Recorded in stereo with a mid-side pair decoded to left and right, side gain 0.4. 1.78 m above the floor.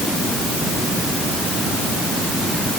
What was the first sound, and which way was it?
Only background noise.